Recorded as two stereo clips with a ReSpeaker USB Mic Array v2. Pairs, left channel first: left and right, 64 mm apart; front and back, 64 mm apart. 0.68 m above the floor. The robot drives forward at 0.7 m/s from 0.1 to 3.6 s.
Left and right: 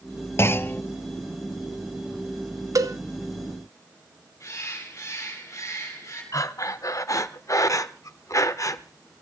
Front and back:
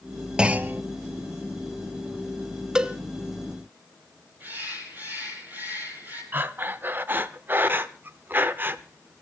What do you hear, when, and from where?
0.4 s a clunk: 110° left, 0.5 m; by 0.8 s 140° left, 0.7 m
2.8 s a cowbell: 100° right, 0.8 m; by 3.0 s 115° right, 0.8 m
4.4 s a bird: 125° left, 6 m
6.3 s breathing: 125° left, 0.7 m